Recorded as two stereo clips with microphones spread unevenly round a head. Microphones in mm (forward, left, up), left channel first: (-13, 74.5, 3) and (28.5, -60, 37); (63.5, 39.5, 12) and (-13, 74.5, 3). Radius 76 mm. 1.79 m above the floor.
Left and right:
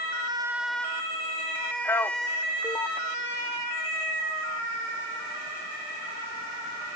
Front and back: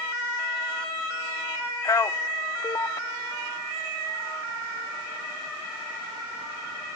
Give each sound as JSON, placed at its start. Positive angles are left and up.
{"t": 1.8, "sound": "a man speaking", "azimuth_deg": 30, "distance_m": 0.5}